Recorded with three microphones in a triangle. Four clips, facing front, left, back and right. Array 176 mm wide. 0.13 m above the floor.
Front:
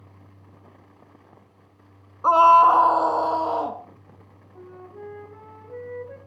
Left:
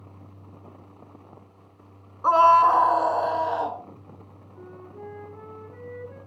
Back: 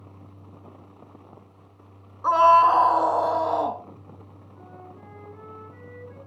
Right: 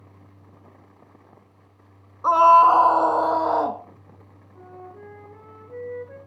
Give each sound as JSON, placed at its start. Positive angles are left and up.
{"t": 2.2, "sound": "a scream", "azimuth_deg": -10, "distance_m": 1.2}
{"t": 4.5, "sound": "a flute", "azimuth_deg": -15, "distance_m": 7.5}